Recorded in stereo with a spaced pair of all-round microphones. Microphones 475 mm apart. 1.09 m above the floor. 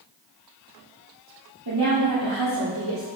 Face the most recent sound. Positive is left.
turn(degrees=-80)